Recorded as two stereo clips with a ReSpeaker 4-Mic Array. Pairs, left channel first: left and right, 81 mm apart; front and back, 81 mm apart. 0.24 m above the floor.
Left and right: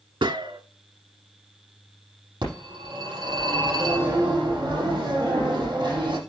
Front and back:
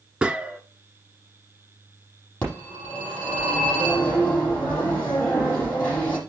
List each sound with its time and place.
0.2 s a gunshot: 100° right, 0.6 m
2.4 s a phone ringing: 60° right, 6 m